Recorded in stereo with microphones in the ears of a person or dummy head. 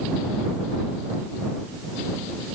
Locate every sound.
Only background noise.